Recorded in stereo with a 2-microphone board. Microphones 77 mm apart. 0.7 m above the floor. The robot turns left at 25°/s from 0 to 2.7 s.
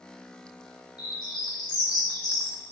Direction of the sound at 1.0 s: 65° left (ahead or behind).